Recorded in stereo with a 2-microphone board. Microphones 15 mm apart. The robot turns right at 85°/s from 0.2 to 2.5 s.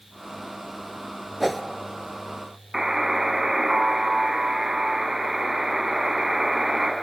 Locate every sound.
1.4 s a whoosh: 10° right (ahead or behind), 0.8 m; by 1.6 s 10° left (ahead or behind), 0.8 m
2.7 s a buzzer: 30° right (ahead or behind), 2 m